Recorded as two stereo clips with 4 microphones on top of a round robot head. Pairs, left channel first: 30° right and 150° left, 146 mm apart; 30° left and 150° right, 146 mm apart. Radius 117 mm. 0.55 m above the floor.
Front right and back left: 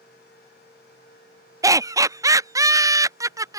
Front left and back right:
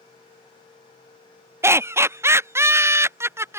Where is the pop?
I don't hear a pop.